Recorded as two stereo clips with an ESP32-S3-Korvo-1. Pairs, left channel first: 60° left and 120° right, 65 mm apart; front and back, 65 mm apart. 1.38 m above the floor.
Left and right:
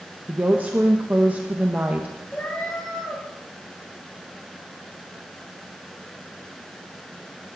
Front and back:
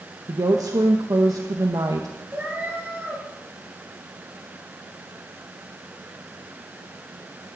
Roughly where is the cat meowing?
Behind left.